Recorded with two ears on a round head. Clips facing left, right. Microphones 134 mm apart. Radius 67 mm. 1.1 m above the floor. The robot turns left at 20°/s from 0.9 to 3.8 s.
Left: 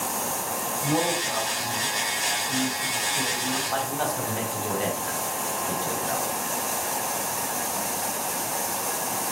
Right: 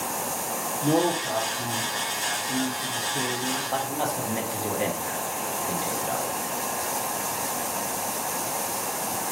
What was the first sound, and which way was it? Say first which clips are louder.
A man speaking: right 4 dB; 85° right.